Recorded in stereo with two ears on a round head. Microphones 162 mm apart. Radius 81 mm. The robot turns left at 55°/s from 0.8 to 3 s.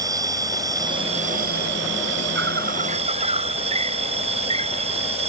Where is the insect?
20° right; by 5.3 s 140° right.